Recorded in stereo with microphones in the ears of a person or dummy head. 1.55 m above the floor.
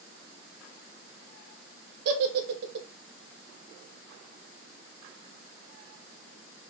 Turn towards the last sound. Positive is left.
turn(degrees=-55)  # may be behind; listen again after turning